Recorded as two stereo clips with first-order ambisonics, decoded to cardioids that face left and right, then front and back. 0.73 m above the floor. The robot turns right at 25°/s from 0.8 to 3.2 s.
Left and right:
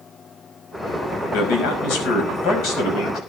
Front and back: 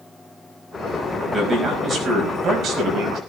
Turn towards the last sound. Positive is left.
turn(degrees=140)